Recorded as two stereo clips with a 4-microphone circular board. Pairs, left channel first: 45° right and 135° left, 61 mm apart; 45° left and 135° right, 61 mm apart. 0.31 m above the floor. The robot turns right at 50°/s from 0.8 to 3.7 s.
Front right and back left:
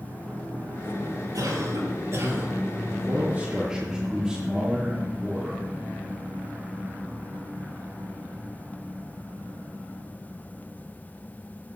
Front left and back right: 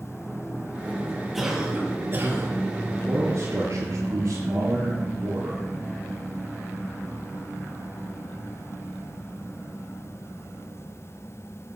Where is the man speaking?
175° left, 4.5 m; by 5.6 s 145° right, 4.5 m.